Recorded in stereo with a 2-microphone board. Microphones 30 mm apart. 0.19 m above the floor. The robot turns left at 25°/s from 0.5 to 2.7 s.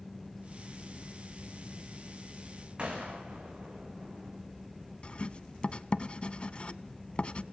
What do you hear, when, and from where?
2.8 s a gunshot: 35° right (ahead or behind), 5.5 m
5.0 s writing: 35° left (ahead or behind), 0.7 m